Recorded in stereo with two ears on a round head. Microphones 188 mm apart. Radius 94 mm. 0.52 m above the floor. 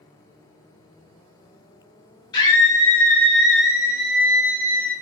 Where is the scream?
20° left (ahead or behind), 0.9 m; by 4.9 s 15° right (ahead or behind), 1.5 m.